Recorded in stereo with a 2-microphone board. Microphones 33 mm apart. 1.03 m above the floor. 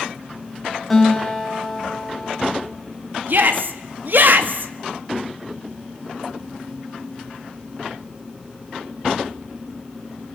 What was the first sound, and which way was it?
A guitar, 5° left (ahead or behind).